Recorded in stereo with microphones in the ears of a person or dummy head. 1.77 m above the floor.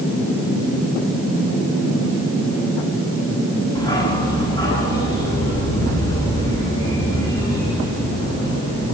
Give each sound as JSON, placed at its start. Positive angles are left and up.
{"t": 3.8, "sound": "a dog barking", "side_deg": 20, "distance_m": 4.5}